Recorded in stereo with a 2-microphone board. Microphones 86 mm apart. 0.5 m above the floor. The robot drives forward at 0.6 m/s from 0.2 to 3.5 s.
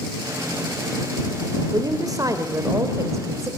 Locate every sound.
1.7 s a woman speaking: 45° right (ahead or behind), 1.9 m; by 3.5 s 35° right (ahead or behind), 2.5 m